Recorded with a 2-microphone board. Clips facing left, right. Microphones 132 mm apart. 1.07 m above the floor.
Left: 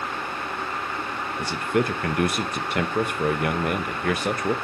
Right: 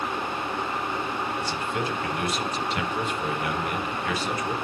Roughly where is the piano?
I don't hear a piano.